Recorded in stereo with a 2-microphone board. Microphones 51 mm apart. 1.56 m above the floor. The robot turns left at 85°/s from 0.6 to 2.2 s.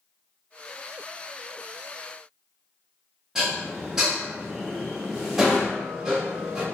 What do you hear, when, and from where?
3.4 s dishes clattering: 10° right (ahead or behind), 1.0 m